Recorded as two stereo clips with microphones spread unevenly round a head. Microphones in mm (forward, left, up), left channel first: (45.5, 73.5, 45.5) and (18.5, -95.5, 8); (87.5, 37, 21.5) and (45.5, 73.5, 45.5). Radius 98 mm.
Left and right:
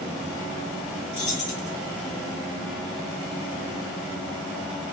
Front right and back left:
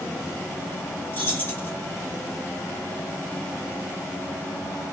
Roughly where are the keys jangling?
Ahead.